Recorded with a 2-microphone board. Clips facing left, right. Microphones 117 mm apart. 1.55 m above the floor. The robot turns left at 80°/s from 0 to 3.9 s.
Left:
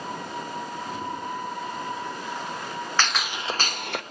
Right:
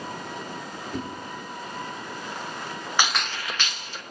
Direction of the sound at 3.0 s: 170° right.